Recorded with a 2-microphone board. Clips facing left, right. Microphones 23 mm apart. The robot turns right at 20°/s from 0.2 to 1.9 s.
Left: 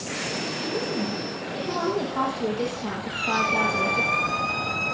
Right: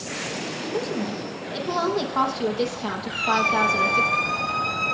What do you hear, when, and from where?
0.7 s a woman speaking: 70° right (ahead or behind), 5 m; by 4.1 s 45° right (ahead or behind), 5 m
3.1 s a squeak: 5° right (ahead or behind), 6 m